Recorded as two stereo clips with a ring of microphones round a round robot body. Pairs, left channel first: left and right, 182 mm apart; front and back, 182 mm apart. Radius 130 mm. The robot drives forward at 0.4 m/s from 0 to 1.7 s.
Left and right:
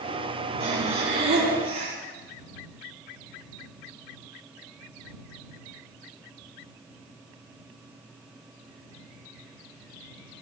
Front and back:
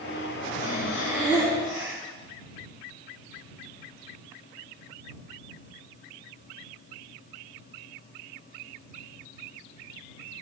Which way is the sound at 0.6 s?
110° right.